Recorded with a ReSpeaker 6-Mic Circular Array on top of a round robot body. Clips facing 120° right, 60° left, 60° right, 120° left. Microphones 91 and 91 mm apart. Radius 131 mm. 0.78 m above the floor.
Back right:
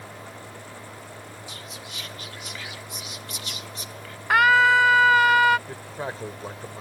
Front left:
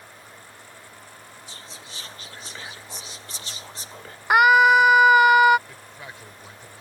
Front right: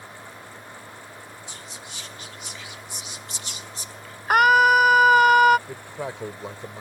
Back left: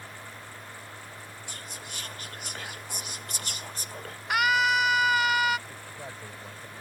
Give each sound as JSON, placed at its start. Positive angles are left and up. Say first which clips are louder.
{"t": 1.5, "sound": "whispering", "louder": "back right 3 dB, front right 1 dB", "azimuth_deg": 110}
{"t": 4.3, "sound": "a scream", "louder": "front left 3 dB, front right 9 dB", "azimuth_deg": -10}
{"t": 5.7, "sound": "a man speaking", "louder": "back right 9 dB, front right 9 dB", "azimuth_deg": -65}